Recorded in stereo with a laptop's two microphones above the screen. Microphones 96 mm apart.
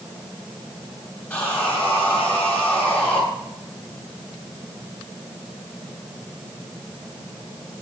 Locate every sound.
1.3 s sawing: 20° left (ahead or behind), 6.5 m